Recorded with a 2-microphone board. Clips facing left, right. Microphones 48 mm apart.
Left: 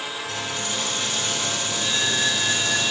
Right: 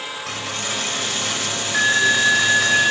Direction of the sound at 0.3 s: 75° right (ahead or behind).